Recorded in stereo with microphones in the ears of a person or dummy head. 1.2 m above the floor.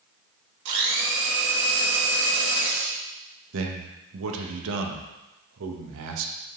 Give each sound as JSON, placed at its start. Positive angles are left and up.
{"t": 0.7, "sound": "a blender", "side_deg": -65, "distance_m": 1.8}
{"t": 3.5, "sound": "a man speaking", "side_deg": -75, "distance_m": 1.0}